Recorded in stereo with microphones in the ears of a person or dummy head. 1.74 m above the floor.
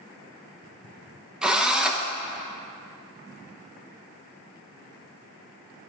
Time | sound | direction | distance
1.4 | a drill | 5° right (ahead or behind) | 0.9 m